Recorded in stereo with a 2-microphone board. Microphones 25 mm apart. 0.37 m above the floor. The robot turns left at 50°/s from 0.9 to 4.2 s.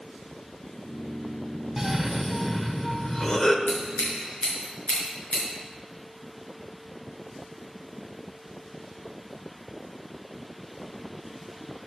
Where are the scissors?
75° left (ahead or behind), 5 m; by 5.4 s 50° left (ahead or behind), 5 m.